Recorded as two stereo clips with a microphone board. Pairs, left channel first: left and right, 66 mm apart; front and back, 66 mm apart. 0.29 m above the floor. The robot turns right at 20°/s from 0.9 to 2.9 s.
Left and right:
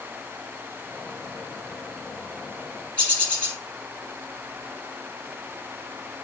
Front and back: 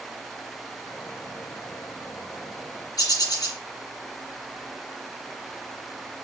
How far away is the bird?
About 2.5 m.